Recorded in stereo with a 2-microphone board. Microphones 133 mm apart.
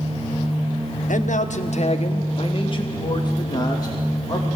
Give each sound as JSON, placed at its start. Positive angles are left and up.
{"t": 1.1, "sound": "a man speaking", "side_deg": 75, "distance_m": 1.1}